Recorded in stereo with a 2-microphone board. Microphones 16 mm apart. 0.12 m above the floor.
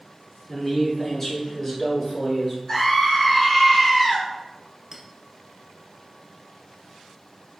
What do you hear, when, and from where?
0.5 s a man speaking: 15° left (ahead or behind), 1.3 m
2.7 s a scream: 20° left (ahead or behind), 1.5 m
4.9 s a clink: 35° right (ahead or behind), 0.9 m